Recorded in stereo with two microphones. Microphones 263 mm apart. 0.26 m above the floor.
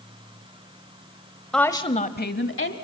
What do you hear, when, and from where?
1.5 s a woman speaking: centre (ahead or behind), 0.9 m; by 2.8 s 55° left (ahead or behind), 1.6 m